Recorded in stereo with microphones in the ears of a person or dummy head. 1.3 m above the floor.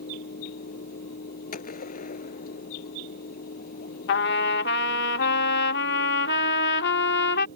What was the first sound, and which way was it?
A fan, 45° left (ahead or behind).